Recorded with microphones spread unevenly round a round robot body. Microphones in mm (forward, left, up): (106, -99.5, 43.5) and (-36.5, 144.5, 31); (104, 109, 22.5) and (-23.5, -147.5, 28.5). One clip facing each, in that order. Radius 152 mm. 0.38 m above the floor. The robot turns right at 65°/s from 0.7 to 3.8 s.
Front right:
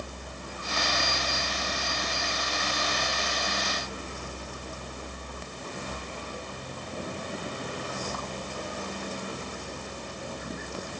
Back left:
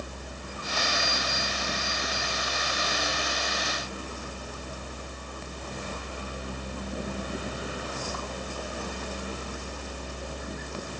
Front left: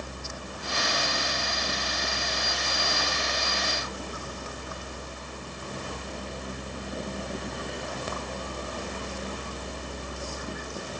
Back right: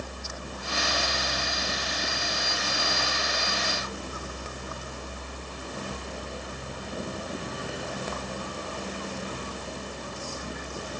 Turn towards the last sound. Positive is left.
No sound to turn to.